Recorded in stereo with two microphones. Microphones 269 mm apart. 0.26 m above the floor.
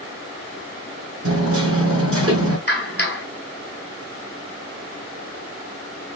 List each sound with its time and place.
1.2 s hammering: 50° right (ahead or behind), 2.5 m
2.7 s a clap: 35° left (ahead or behind), 1.9 m